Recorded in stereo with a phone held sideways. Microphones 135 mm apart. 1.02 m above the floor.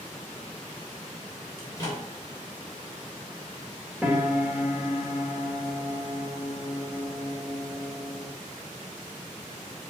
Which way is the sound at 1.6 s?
25° left (ahead or behind).